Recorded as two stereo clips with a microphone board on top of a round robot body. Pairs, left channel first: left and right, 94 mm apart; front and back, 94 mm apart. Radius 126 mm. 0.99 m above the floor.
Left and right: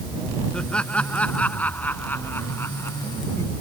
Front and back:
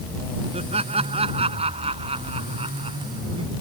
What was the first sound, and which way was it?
Laughter, 170° left.